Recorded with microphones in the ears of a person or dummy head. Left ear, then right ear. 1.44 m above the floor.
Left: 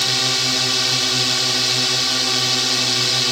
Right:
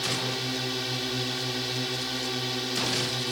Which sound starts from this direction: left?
A drone, at 0.0 s.